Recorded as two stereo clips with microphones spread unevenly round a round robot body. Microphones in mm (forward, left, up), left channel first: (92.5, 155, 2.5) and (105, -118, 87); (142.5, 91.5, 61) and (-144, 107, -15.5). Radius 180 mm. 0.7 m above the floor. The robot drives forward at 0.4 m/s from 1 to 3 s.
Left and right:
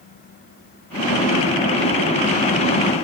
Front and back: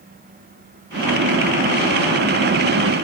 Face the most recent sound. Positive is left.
No sound to turn to.